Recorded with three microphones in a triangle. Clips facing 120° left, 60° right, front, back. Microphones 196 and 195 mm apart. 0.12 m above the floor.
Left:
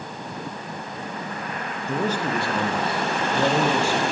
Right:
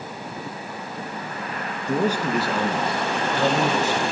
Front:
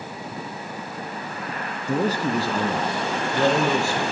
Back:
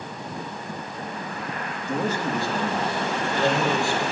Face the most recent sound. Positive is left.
turn(degrees=45)